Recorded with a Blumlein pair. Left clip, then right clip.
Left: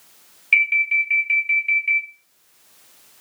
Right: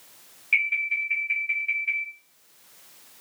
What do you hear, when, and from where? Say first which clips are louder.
0.5 s an alarm: left 7 dB; 60° left, 2.5 m